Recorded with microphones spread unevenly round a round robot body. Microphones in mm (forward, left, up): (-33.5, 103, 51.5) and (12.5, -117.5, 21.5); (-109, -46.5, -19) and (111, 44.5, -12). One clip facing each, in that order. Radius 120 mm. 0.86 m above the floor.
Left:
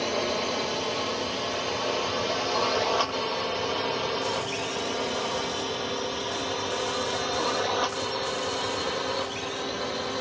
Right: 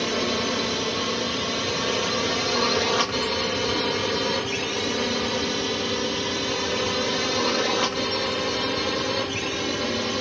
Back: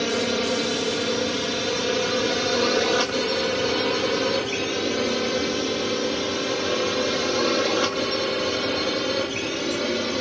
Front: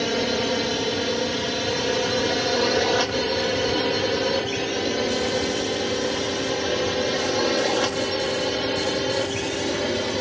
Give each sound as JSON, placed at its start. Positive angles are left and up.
{"t": 0.0, "sound": "a drone", "azimuth_deg": -80}